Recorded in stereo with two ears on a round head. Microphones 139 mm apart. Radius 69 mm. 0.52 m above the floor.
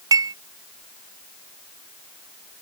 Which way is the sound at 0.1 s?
25° right (ahead or behind).